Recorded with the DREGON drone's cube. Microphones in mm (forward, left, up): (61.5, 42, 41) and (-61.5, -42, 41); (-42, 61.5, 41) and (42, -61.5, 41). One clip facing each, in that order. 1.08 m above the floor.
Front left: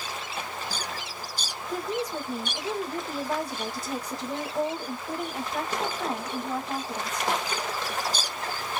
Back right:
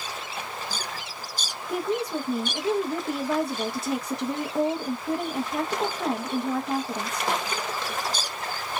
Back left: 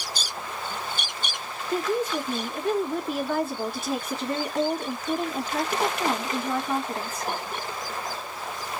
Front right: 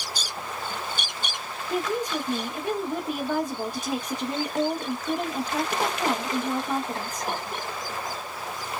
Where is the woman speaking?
130° right, 1.0 m.